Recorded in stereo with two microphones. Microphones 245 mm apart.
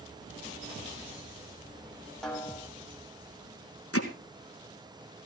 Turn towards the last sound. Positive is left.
turn(degrees=70)  # may be behind; listen again after turning